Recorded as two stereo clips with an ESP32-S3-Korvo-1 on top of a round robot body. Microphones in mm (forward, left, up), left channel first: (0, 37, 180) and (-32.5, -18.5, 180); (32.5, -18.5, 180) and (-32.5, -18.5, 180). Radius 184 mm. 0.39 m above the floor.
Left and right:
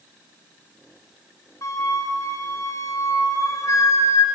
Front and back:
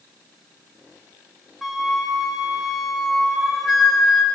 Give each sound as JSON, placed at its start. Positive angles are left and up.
{"t": 1.6, "sound": "a flute", "azimuth_deg": 90, "distance_m": 1.8}